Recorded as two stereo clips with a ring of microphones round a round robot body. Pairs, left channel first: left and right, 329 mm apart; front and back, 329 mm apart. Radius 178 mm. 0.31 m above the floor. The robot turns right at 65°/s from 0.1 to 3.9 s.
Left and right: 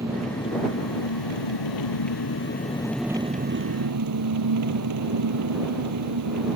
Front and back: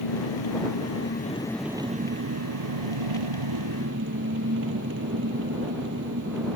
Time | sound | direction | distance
0.0 | an engine running | 10° right | ?